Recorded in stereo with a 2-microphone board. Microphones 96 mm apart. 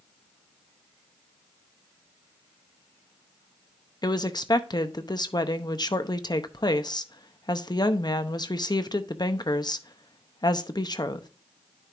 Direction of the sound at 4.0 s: 45° left (ahead or behind).